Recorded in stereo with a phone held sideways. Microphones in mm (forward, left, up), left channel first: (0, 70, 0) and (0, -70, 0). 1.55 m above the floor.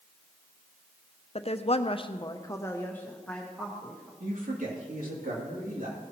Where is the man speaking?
75° right (ahead or behind), 3 m.